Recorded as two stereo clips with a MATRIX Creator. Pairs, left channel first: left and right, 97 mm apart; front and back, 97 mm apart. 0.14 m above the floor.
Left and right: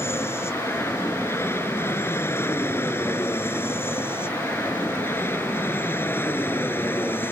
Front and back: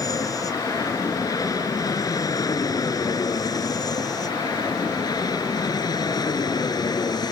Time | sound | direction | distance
0.0 | an aircraft | 35° left | ?